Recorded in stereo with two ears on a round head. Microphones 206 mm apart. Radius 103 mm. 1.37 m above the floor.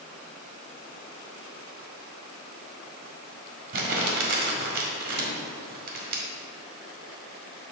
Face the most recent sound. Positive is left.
turn(degrees=-45)  # may be behind; listen again after turning